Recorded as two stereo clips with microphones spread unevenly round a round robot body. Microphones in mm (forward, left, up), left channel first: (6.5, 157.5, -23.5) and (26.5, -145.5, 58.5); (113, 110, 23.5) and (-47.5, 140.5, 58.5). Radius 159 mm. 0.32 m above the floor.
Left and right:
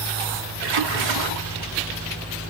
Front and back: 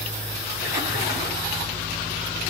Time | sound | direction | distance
0.6 | a splash | 110° right | 3 m